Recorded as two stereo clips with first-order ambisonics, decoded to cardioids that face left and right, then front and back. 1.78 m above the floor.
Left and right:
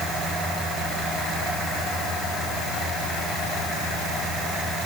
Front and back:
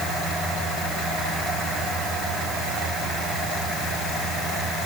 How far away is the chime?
No chime in this recording.